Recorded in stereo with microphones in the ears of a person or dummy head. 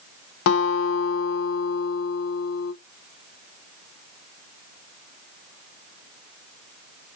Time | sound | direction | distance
0.5 | a guitar | 75° left (ahead or behind) | 0.6 m